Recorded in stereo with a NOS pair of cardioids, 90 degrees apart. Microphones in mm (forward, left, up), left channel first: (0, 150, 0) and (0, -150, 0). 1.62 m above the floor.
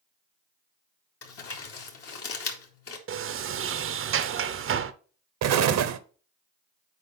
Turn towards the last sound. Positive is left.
turn(degrees=-60)